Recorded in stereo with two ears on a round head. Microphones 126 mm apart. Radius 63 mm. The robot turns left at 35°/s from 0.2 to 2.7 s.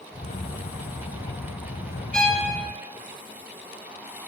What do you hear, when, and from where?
2.1 s a violin: 5° left (ahead or behind), 0.6 m; by 2.5 s 10° left (ahead or behind), 0.6 m